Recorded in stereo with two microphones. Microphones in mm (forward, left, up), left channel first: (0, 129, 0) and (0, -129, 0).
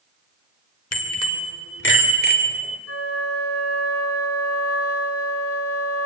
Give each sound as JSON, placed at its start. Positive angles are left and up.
{"t": 0.9, "sound": "a bicycle bell", "side_deg": 70, "distance_m": 2.5}
{"t": 2.9, "sound": "a flute", "side_deg": 65, "distance_m": 3.0}